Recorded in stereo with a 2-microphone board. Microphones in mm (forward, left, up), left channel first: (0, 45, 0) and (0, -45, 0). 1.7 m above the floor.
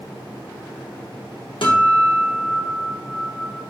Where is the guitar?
75° left (ahead or behind), 3 m.